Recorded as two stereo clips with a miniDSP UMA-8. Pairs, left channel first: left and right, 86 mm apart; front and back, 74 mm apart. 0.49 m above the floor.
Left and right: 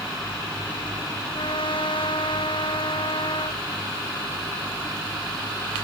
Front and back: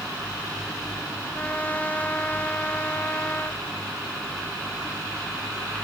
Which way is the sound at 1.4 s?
70° left.